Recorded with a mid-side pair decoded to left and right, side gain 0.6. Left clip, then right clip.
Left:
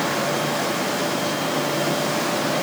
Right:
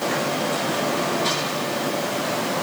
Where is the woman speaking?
I don't hear a woman speaking.